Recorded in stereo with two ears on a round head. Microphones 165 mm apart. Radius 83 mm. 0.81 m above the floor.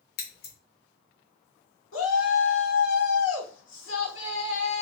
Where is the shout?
80° left, 1.7 m.